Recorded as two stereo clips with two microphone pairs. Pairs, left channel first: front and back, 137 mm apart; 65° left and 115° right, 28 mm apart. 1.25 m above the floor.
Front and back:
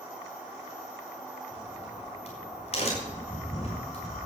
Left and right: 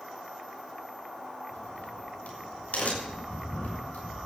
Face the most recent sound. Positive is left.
turn(degrees=35)